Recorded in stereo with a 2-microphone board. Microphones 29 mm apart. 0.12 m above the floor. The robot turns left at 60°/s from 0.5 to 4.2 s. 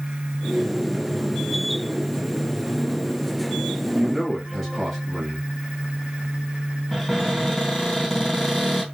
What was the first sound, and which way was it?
A man speaking, 5° right (ahead or behind).